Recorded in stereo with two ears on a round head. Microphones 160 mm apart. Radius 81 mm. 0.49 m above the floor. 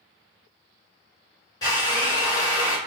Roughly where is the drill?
Left.